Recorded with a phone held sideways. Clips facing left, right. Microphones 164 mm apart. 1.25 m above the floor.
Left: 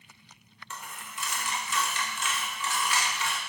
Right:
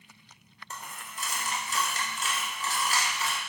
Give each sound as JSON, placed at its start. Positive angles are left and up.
{"t": 0.7, "sound": "a dropped coin", "side_deg": -40, "distance_m": 0.6}